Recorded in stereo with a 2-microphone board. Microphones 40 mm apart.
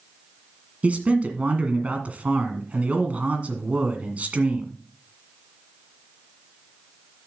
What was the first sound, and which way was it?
A man speaking, 40° right (ahead or behind).